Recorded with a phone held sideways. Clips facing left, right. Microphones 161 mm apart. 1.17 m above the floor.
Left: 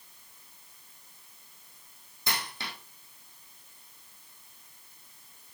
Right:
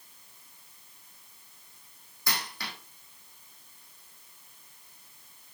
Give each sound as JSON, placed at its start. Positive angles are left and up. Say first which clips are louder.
{"t": 2.3, "sound": "a dropped coin", "louder": "even", "side_deg": 20, "distance_m": 6.0}